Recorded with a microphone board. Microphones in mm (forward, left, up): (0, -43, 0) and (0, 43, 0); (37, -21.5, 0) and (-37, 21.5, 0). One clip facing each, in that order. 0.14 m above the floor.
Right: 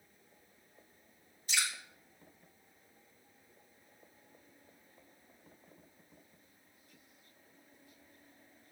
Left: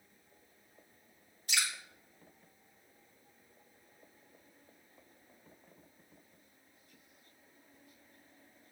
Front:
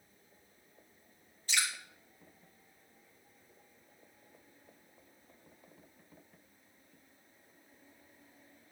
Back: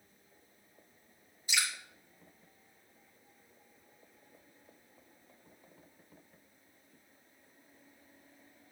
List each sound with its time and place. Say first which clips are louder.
1.5 s dripping: even, even; 75° left, 4 m